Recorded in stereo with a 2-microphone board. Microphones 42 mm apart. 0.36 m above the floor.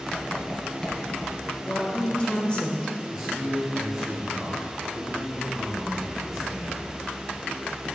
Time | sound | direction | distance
0.1 | writing | 20° left (ahead or behind) | 1.9 m
1.6 | a woman speaking | 25° left (ahead or behind) | 0.9 m
3.1 | a man speaking | 15° right (ahead or behind) | 1.4 m